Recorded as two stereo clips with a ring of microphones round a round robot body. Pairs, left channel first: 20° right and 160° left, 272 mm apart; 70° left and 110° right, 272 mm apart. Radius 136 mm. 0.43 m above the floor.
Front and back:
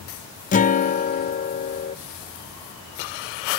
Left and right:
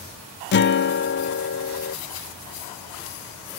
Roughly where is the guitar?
Ahead left.